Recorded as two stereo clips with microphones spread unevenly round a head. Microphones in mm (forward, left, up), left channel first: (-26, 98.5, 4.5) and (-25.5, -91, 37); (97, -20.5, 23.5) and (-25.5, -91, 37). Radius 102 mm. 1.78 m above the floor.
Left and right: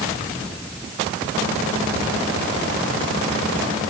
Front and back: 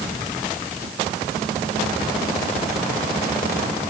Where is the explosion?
No explosion in this recording.